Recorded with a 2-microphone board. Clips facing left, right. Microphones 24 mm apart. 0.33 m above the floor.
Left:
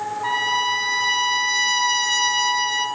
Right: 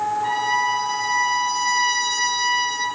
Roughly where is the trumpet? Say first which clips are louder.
Left 3 dB; left.